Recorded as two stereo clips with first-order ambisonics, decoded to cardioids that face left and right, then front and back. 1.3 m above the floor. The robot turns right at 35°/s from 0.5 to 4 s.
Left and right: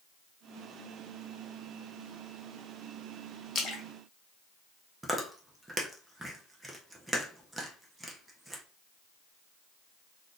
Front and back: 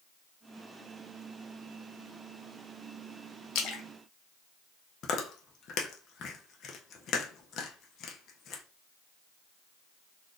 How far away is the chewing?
About 0.5 m.